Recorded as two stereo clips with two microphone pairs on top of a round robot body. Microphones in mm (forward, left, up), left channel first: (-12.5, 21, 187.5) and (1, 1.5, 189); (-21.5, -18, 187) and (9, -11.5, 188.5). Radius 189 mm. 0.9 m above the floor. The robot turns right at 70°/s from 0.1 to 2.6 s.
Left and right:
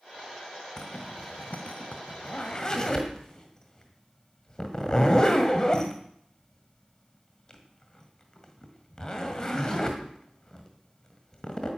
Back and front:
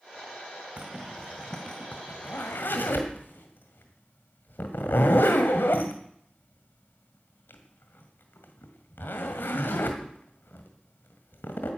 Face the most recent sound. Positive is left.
turn(degrees=-165)